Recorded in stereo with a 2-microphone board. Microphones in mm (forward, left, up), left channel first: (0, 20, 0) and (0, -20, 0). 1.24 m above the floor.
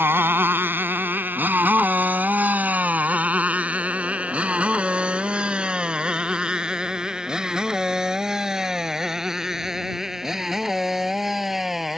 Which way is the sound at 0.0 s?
65° right (ahead or behind).